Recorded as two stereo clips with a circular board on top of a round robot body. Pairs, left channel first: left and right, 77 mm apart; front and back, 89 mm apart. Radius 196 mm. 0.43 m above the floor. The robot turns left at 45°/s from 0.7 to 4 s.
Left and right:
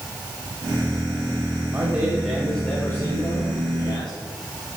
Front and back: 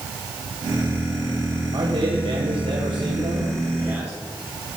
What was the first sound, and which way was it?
A man speaking, 155° right.